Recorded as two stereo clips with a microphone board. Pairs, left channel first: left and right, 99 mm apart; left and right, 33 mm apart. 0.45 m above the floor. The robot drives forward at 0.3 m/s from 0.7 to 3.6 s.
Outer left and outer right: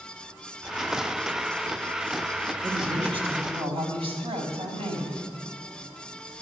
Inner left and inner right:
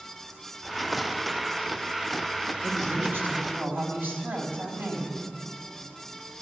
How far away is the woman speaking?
About 3.5 m.